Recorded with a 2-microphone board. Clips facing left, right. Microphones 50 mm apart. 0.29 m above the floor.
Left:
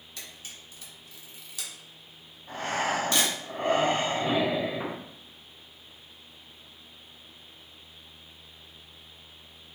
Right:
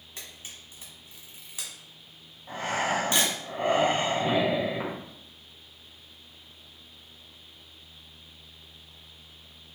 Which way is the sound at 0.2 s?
30° right (ahead or behind).